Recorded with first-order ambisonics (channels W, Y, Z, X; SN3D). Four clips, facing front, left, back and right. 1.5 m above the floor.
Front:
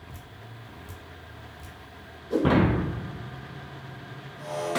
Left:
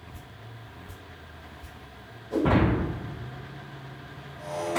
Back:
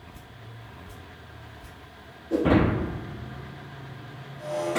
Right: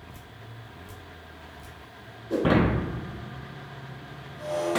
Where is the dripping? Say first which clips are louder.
Even, front 1 dB; 35° right, 0.9 m.